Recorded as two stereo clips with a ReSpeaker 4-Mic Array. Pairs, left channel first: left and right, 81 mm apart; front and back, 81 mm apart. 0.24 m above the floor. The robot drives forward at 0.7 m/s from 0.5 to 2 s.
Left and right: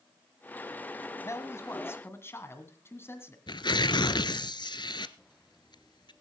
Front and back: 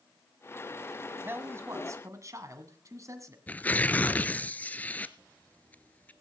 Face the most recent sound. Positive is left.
turn(degrees=70)